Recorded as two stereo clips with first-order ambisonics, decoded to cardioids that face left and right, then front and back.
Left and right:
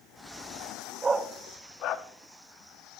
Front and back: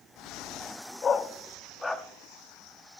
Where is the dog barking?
40° right, 0.7 m; by 2.0 s 80° left, 1.1 m.